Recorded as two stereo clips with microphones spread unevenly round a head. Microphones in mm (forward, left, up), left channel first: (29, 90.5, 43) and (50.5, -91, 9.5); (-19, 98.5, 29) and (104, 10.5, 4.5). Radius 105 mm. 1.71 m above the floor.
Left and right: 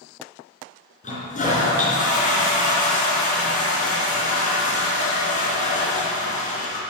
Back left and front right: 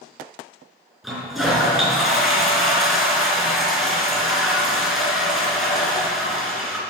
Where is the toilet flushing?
60° left, 4 m.